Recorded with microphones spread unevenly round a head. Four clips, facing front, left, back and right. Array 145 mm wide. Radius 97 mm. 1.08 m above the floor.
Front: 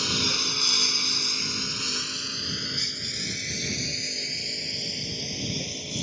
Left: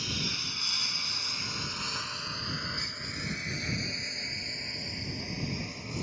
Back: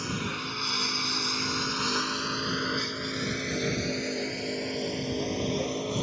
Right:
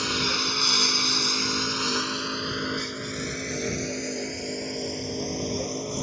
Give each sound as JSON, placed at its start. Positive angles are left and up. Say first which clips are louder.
{"t": 0.0, "sound": "a lawn mower", "louder": "right 10 dB, front 1 dB", "azimuth_deg": -60}